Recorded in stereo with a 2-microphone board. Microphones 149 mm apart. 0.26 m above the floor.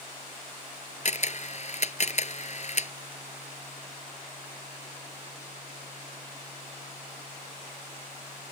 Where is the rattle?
I don't hear a rattle.